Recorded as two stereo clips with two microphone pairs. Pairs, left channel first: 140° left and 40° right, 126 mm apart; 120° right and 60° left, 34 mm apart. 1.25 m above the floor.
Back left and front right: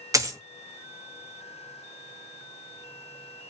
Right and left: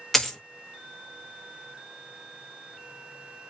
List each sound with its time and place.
0.1 s a dropped coin: 45° right, 0.6 m